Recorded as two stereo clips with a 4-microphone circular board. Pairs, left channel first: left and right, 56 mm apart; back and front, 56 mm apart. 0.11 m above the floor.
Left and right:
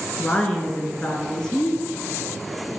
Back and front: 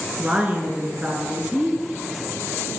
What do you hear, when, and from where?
0.2 s a woman speaking: 30° left, 1.2 m